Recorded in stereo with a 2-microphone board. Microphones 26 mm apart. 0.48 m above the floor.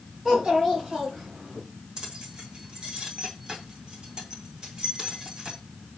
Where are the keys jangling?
30° right (ahead or behind), 2.5 m.